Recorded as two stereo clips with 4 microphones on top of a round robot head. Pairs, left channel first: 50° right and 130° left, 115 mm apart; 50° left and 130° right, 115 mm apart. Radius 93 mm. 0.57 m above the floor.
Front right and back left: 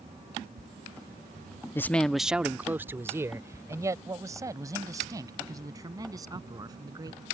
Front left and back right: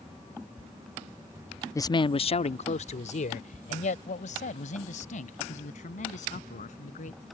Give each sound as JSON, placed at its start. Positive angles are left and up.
{"t": 1.8, "sound": "a man speaking", "azimuth_deg": 5}